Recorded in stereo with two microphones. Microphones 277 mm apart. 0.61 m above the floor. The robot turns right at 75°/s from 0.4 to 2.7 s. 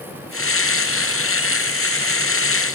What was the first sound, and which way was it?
Only background noise.